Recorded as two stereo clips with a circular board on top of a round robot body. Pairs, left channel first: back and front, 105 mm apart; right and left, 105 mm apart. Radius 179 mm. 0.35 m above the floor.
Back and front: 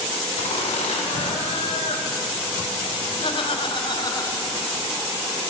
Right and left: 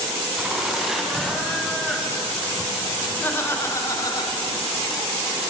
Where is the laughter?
175° left, 6 m; by 4.7 s 115° right, 2 m.